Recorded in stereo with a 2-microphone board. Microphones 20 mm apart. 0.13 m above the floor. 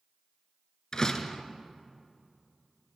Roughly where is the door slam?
Left.